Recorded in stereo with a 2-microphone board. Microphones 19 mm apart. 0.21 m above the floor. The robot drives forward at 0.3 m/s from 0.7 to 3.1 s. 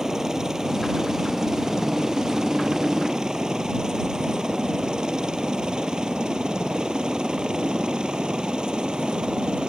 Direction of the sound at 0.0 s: 30° right (ahead or behind).